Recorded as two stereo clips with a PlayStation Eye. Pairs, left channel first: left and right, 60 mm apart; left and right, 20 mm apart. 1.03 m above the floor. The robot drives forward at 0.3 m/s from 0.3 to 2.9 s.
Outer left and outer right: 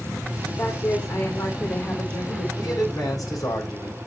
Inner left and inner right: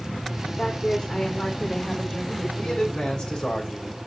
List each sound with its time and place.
0.6 s a woman speaking: 55° left (ahead or behind), 2.5 m; by 2.5 s 65° left (ahead or behind), 2.0 m
2.6 s a man speaking: 70° left (ahead or behind), 5 m